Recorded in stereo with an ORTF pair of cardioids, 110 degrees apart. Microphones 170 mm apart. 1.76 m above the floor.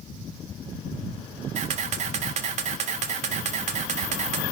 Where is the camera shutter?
45° right, 0.6 m.